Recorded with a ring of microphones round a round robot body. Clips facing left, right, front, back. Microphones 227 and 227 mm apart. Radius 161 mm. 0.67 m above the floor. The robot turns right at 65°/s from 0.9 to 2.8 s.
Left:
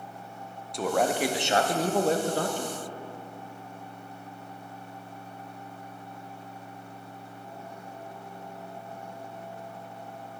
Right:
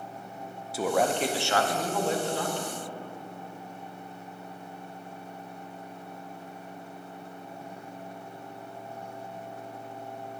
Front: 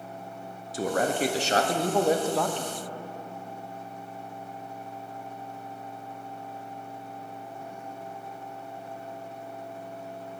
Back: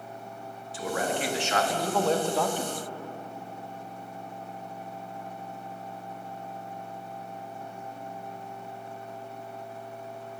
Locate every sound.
0.7 s a man speaking: 5° right, 0.6 m; by 2.8 s 115° left, 0.6 m